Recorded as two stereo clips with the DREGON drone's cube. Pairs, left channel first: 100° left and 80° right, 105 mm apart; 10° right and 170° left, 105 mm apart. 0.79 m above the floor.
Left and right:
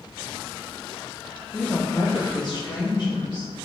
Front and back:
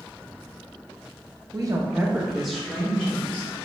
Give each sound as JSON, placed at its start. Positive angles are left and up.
{"t": 1.5, "sound": "a woman speaking", "azimuth_deg": 175, "distance_m": 0.8}